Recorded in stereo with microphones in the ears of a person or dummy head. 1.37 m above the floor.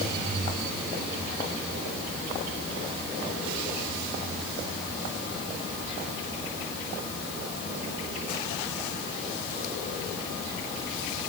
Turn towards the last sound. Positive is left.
No sound to turn to.